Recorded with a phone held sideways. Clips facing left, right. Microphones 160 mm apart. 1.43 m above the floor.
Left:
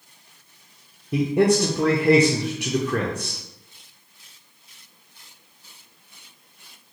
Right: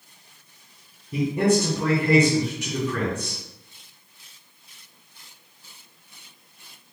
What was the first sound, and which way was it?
A man speaking, 75° left (ahead or behind).